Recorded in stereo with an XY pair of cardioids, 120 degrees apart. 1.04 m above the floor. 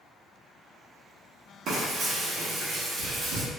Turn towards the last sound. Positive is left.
turn(degrees=-60)